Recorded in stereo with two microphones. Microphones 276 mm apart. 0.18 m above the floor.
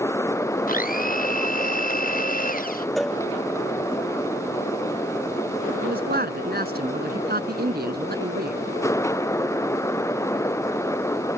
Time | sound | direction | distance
0.7 | a blender | 30° left (ahead or behind) | ?
3.0 | a cowbell | centre (ahead or behind) | ?
5.8 | a man speaking | 35° right (ahead or behind) | ?